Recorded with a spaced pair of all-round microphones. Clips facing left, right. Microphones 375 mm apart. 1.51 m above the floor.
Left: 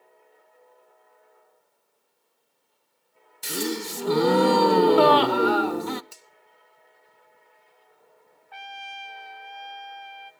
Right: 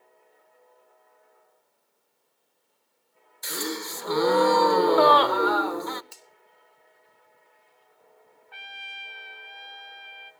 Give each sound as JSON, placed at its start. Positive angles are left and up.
{"t": 3.4, "sound": "a gasp", "side_deg": 40, "distance_m": 0.6}
{"t": 6.1, "sound": "a finger snap", "side_deg": 10, "distance_m": 2.0}
{"t": 8.5, "sound": "a trumpet", "side_deg": 55, "distance_m": 1.1}